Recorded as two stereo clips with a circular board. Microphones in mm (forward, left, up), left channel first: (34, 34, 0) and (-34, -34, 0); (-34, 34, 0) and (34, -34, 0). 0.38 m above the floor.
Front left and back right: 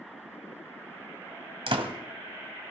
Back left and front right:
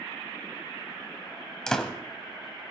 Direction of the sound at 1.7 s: 145° right.